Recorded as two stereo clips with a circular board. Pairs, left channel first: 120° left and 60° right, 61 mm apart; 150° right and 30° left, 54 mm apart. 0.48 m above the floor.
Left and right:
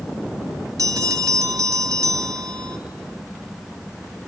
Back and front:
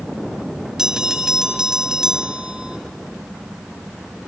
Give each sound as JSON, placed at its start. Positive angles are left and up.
{"t": 0.8, "sound": "a bell", "azimuth_deg": -50, "distance_m": 0.8}